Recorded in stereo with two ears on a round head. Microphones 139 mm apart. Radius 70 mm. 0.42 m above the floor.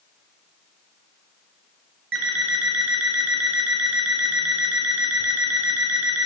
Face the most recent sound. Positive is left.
turn(degrees=-85)